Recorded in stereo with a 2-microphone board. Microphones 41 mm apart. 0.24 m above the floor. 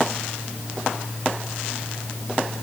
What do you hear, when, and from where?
Only background noise.